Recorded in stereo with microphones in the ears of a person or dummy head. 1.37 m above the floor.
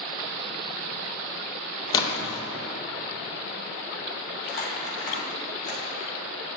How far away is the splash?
About 0.9 m.